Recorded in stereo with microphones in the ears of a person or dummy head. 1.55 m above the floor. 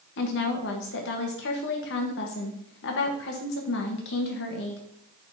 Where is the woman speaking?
60° left (ahead or behind), 1.2 m.